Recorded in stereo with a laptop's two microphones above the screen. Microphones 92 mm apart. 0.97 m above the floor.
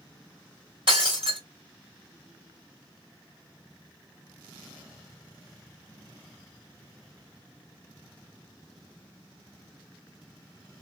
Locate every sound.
0.9 s breaking glass: 70° right (ahead or behind), 1.6 m